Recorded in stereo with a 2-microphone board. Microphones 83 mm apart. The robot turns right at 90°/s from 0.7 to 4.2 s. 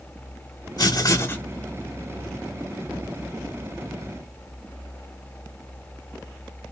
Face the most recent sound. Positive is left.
turn(degrees=45)